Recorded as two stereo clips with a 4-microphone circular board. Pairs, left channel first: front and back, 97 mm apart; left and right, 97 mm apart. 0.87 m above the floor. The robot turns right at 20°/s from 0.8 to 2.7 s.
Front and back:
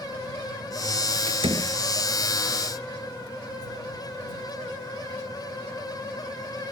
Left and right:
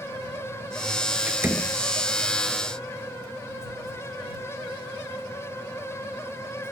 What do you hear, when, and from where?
1.3 s a door slam: 165° right; by 1.8 s 155° right